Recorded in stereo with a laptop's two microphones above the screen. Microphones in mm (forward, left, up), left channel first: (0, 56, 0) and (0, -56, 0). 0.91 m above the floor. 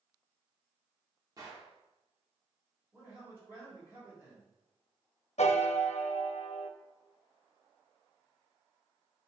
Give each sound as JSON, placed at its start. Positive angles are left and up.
{"t": 1.4, "sound": "a gunshot", "side_deg": -35, "distance_m": 1.7}
{"t": 2.9, "sound": "a man speaking", "side_deg": -20, "distance_m": 3.5}
{"t": 5.4, "sound": "a piano", "side_deg": 75, "distance_m": 0.7}